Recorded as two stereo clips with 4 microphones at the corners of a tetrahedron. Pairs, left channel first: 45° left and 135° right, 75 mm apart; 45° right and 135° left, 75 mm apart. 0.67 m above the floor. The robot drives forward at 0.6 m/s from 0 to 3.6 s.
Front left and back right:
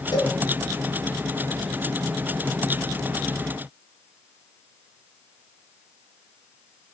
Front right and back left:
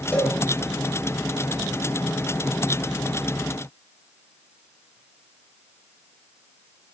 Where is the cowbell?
25° left, 2.5 m.